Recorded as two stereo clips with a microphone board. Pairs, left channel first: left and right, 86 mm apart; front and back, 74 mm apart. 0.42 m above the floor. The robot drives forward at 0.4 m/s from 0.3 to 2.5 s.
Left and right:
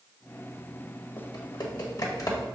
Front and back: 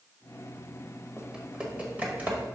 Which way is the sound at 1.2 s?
100° left.